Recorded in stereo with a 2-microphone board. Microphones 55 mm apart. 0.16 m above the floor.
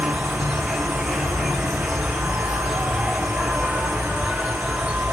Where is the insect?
5° right (ahead or behind), 1.0 m.